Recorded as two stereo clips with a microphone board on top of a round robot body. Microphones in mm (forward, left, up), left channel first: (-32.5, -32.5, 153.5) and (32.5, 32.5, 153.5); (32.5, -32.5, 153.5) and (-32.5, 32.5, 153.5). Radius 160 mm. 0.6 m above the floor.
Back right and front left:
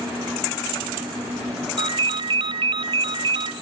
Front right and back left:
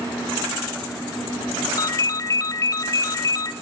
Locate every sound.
1.8 s a ringtone: 10° left, 0.7 m